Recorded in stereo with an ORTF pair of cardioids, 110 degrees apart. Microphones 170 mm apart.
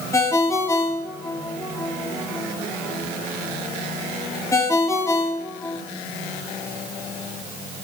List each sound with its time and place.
0.1 s a ringtone: 15° left, 2.5 m